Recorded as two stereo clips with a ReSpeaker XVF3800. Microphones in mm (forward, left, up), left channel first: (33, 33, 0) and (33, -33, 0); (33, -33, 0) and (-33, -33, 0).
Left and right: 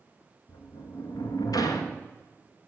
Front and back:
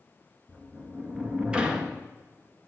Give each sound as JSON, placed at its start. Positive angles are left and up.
{"t": 0.5, "sound": "a sliding door", "azimuth_deg": 105, "distance_m": 1.3}